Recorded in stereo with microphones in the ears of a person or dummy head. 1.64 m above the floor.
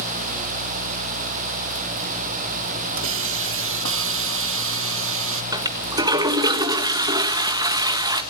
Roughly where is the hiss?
Right.